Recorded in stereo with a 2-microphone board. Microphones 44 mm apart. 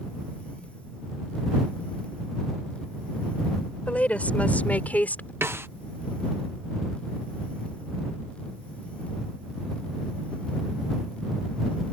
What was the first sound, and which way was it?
A woman speaking, 30° left (ahead or behind).